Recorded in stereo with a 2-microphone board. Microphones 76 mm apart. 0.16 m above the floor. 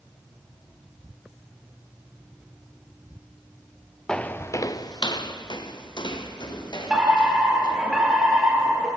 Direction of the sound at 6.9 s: 10° right (ahead or behind).